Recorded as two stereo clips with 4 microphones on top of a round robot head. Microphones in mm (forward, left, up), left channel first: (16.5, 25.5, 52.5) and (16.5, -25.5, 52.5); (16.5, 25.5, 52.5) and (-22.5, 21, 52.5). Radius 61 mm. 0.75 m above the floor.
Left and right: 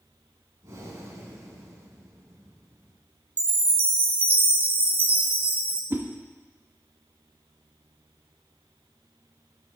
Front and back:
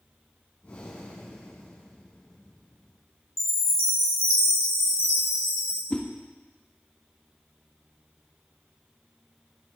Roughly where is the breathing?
Ahead right.